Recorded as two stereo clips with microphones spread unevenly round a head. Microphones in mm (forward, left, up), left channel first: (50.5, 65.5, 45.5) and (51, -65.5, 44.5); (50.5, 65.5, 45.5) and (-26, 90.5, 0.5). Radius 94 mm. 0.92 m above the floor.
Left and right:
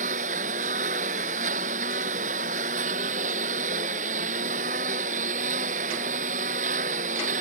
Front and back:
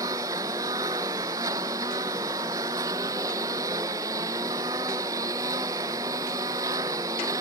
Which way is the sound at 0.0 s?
135° right.